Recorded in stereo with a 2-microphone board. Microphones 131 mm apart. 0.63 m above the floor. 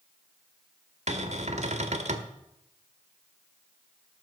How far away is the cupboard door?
About 1.5 m.